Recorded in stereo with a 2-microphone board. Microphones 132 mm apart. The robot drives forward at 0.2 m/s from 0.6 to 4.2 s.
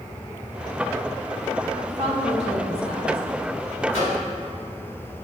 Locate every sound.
1.9 s a woman speaking: 50° right (ahead or behind), 1.5 m; by 3.2 s 45° right (ahead or behind), 1.6 m
3.9 s a microwave: 50° right (ahead or behind), 1.8 m; by 4.2 s 45° right (ahead or behind), 1.9 m